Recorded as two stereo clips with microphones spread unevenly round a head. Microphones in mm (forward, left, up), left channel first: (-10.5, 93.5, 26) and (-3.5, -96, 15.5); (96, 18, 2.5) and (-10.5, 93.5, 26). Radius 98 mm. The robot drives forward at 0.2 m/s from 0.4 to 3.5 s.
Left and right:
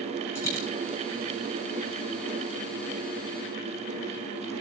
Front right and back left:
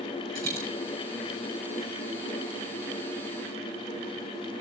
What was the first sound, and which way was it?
A dropped coin, 170° left.